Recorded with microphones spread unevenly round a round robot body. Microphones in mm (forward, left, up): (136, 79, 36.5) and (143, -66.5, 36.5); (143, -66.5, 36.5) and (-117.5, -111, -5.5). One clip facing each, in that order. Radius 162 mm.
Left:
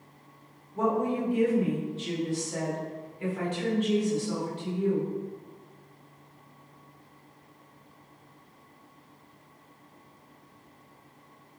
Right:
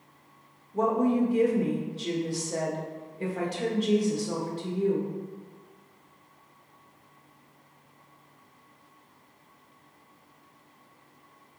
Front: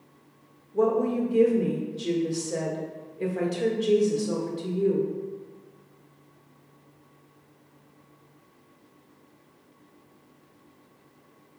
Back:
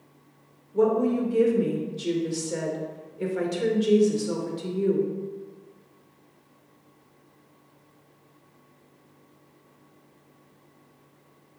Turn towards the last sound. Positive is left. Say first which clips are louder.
# right 3 dB, back 2 dB
turn(degrees=-100)